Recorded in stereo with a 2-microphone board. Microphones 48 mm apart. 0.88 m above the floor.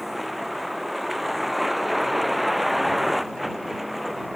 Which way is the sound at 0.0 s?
Centre (ahead or behind).